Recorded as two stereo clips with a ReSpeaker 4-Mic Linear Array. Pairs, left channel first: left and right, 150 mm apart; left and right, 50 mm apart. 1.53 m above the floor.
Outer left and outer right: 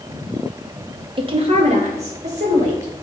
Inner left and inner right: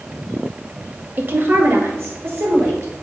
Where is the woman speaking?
35° right (ahead or behind), 1.0 m; by 2.9 s 50° right (ahead or behind), 3.5 m.